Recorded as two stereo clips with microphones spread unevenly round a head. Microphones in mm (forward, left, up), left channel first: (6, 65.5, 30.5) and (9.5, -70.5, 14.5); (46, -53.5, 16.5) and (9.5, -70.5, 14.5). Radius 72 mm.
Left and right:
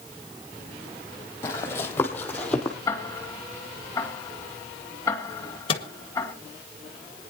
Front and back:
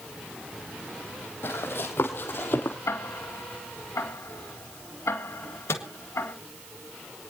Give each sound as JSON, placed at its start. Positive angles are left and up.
{"t": 1.4, "sound": "running footsteps", "azimuth_deg": 30, "distance_m": 3.0}
{"t": 2.9, "sound": "ticking", "azimuth_deg": 20, "distance_m": 2.5}
{"t": 5.7, "sound": "a microwave", "azimuth_deg": 40, "distance_m": 1.7}